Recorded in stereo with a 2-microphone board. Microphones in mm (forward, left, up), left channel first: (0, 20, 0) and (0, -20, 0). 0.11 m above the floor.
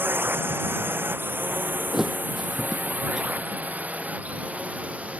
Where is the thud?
15° right (ahead or behind).